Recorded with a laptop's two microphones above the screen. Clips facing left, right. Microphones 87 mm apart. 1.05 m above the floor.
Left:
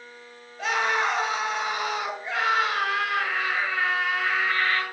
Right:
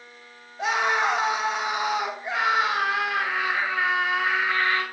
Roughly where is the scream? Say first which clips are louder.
Right 1 dB; centre.